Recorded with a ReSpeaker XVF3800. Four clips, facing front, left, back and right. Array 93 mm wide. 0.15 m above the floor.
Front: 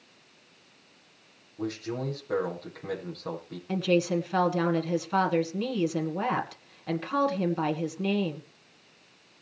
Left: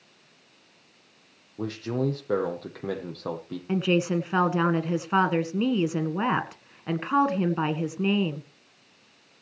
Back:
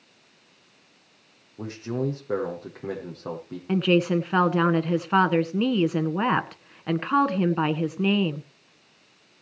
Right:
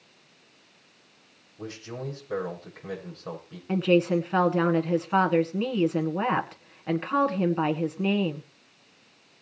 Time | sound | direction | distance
1.6 | a man speaking | 110° left | 6 m
3.7 | a woman speaking | 165° left | 1.7 m